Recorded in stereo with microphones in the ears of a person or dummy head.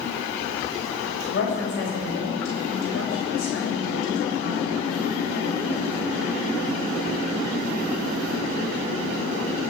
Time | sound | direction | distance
1.3 | a woman speaking | 55° left (ahead or behind) | 6.5 m